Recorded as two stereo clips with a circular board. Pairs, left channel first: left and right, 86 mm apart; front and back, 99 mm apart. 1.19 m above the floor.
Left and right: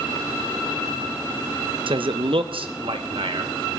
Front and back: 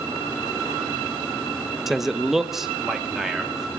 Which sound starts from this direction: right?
A man speaking, at 1.9 s.